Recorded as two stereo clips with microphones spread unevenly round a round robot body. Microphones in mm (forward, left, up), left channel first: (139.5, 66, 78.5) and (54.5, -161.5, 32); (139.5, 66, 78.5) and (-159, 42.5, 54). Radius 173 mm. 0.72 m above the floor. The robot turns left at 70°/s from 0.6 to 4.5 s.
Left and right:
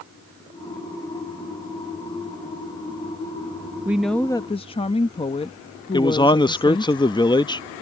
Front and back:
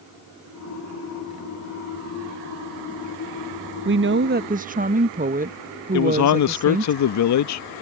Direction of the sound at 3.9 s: 175° right.